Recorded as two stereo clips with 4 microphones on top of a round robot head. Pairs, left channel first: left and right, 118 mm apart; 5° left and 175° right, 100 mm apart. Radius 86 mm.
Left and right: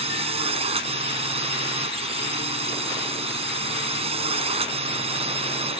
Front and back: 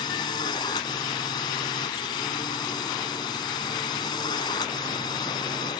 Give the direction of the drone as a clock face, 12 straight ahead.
2 o'clock.